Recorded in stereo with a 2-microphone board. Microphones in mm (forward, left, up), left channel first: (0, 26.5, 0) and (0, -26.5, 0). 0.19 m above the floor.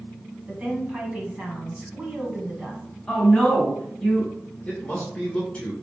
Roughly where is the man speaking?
Left.